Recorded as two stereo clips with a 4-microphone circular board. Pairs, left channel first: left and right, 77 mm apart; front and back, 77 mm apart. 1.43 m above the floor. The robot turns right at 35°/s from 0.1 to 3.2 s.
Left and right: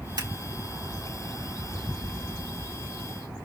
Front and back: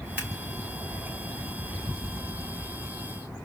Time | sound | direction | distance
0.2 | scissors | 110° right | 3.5 m